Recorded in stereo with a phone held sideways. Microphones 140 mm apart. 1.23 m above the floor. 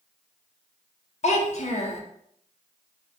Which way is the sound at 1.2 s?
55° left (ahead or behind).